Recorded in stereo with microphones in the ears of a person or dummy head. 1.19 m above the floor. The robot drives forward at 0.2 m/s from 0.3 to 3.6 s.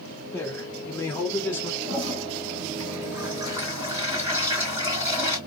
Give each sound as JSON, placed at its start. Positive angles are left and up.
{"t": 0.3, "sound": "a man speaking", "side_deg": 10, "distance_m": 1.4}
{"t": 1.8, "sound": "a toilet flushing", "side_deg": -20, "distance_m": 2.5}